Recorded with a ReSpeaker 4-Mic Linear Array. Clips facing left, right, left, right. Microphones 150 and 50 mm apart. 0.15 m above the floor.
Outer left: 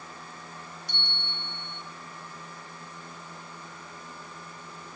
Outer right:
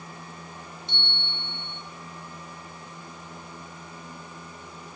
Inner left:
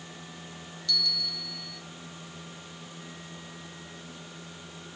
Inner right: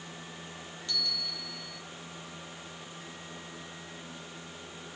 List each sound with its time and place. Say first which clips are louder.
0.9 s a bell: outer right 2 dB, inner left 4 dB; 25° right (ahead or behind), 0.7 m